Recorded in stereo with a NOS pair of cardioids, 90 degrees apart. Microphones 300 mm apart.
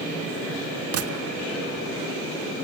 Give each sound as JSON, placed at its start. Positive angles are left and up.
{"t": 0.9, "sound": "a gunshot", "azimuth_deg": -50, "distance_m": 1.5}